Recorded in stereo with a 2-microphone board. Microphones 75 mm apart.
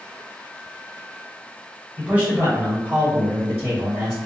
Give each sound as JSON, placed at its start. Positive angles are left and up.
{"t": 2.0, "sound": "a man speaking", "side_deg": -15, "distance_m": 1.6}